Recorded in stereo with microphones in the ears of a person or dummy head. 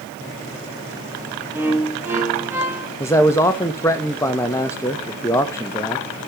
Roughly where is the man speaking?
Centre.